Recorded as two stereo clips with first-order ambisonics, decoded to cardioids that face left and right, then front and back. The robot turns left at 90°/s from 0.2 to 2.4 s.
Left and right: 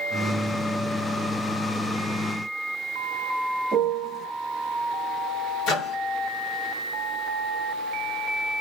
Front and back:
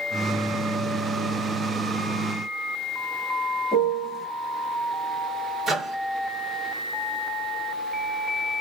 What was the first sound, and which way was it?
A piano, 65° right.